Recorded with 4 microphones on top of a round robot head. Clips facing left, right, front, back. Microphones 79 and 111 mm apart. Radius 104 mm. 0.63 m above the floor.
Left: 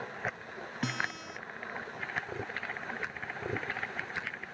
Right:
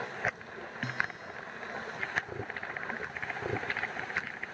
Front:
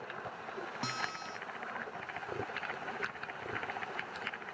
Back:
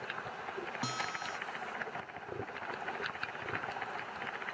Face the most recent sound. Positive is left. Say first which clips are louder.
# even, back 1 dB
turn(degrees=95)